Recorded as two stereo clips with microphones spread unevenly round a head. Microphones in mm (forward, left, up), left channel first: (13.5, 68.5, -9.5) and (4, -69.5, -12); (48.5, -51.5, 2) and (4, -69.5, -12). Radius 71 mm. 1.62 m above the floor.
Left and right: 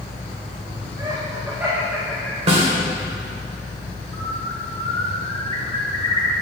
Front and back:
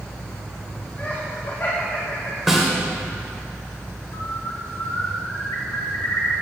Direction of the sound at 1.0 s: 35° right.